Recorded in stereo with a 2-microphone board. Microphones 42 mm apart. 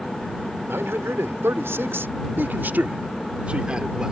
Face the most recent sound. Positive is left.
turn(degrees=-15)  # may be behind; listen again after turning